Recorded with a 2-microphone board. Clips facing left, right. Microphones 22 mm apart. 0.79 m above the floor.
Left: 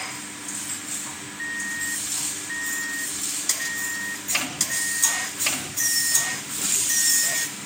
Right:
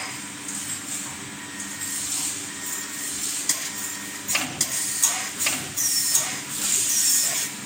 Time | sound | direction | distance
1.4 | an alarm clock | 55° left (ahead or behind) | 5.5 m